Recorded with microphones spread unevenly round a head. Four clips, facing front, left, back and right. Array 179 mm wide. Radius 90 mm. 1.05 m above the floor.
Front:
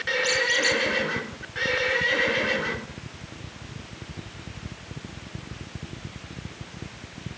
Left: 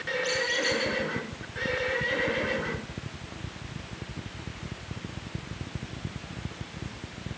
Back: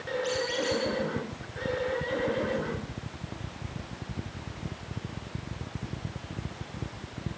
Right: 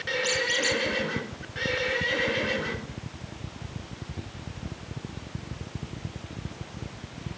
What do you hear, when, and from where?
0.2 s a squeak: 55° right, 5.5 m